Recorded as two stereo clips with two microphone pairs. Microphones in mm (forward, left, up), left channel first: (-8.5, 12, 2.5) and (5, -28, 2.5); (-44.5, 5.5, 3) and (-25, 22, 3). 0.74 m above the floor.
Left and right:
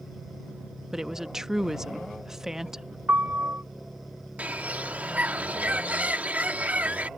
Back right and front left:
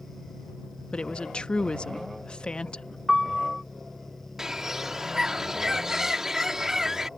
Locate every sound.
0.9 s a woman speaking: 145° right
3.1 s a piano: 45° right
4.4 s a bird: 30° right